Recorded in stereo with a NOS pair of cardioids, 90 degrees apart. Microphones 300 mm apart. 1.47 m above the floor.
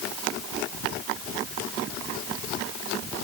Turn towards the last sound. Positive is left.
No sound to turn to.